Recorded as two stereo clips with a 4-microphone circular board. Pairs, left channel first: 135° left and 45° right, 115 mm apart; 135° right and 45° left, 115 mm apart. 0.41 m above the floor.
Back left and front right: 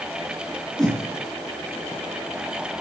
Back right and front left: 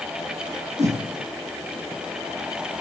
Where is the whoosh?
50° left, 5.5 m.